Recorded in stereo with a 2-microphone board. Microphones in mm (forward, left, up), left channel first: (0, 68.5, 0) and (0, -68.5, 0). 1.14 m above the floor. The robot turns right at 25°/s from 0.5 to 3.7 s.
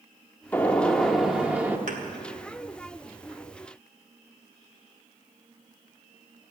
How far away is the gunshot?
About 1.0 m.